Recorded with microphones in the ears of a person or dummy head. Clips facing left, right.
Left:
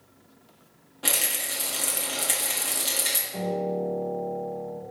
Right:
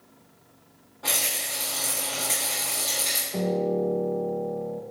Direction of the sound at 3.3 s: 45° right (ahead or behind).